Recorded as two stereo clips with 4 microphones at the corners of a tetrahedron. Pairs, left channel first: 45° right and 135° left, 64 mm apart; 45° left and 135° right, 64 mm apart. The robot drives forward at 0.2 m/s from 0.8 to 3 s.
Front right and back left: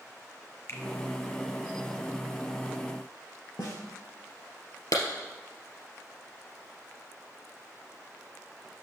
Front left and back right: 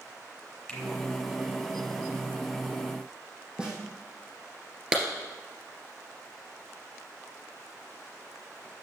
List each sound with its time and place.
0.7 s a finger snap: 25° right, 1.5 m
3.6 s a snare drum: 60° right, 3.5 m
4.9 s a clap: 60° right, 2.5 m